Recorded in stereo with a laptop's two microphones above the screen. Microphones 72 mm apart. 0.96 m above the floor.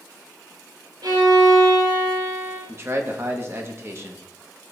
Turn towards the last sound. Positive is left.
turn(degrees=-40)  # may be behind; listen again after turning